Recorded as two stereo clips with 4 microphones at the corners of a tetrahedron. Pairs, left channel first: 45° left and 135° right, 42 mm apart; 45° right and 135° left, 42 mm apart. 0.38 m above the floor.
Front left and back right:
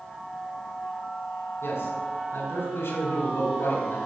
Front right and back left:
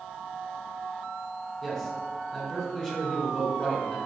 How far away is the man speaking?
About 4.5 m.